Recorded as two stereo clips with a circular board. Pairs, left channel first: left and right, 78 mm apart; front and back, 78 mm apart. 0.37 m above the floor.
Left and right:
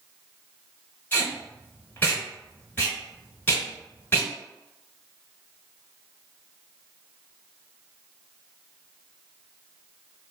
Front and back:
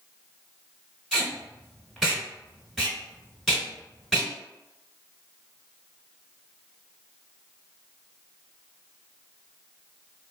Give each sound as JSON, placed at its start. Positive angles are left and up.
{"t": 1.1, "sound": "tape being pulled", "azimuth_deg": 90, "distance_m": 1.5}